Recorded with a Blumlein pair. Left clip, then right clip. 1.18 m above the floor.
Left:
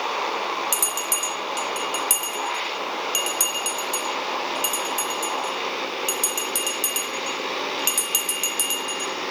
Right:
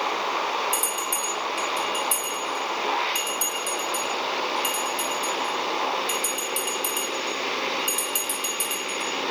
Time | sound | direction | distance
0.7 | a bell | 45° left | 1.4 m